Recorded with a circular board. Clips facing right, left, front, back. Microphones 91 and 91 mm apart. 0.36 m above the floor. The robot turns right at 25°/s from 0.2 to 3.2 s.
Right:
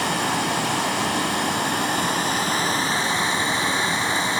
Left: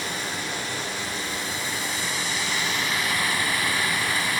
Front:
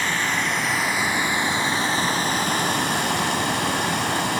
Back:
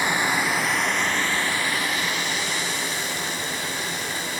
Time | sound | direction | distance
0.0 | running water | 100° right | 0.8 m